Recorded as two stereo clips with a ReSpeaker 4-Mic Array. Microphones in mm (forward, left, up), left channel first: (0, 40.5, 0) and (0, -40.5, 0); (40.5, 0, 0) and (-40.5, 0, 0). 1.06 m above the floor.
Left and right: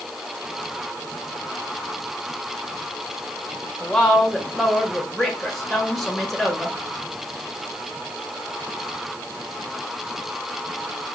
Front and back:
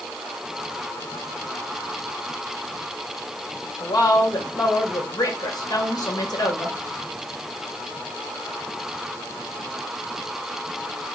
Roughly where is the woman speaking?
Ahead.